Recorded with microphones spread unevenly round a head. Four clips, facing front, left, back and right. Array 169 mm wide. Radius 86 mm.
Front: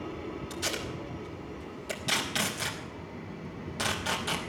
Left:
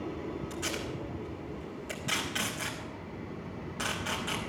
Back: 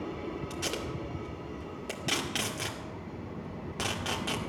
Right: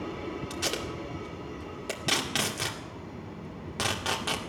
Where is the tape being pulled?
115° right, 2 m.